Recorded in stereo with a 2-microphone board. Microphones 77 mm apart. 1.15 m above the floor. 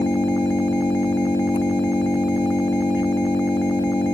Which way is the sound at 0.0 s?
90° left.